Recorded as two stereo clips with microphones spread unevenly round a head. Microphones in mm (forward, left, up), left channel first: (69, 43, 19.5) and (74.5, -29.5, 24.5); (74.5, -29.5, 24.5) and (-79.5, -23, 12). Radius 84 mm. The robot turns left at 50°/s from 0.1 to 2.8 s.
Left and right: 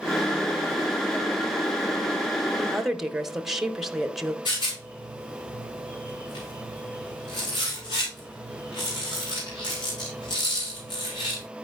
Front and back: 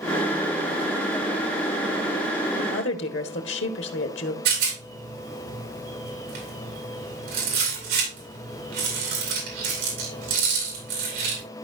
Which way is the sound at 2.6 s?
10° left.